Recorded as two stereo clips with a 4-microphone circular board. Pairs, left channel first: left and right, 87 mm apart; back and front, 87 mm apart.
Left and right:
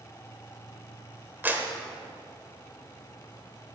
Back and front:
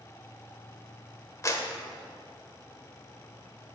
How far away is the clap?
About 1.1 m.